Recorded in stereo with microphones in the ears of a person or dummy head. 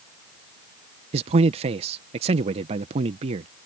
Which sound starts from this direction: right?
A man speaking, at 1.1 s.